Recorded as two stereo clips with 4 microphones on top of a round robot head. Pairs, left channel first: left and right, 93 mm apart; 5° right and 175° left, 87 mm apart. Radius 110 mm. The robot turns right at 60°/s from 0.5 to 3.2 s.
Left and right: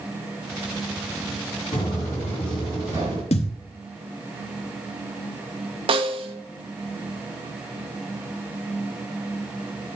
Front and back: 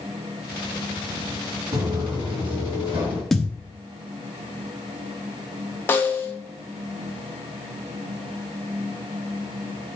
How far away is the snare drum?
About 1.1 m.